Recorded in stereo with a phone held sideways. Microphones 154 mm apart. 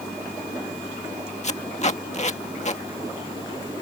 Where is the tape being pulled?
45° left (ahead or behind).